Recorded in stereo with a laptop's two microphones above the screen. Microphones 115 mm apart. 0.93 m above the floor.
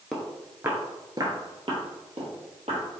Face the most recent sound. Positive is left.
turn(degrees=-60)  # may be behind; listen again after turning